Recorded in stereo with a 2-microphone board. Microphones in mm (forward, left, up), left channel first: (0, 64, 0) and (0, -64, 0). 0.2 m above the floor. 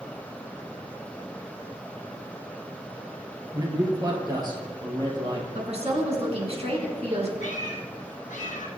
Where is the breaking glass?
I don't hear breaking glass.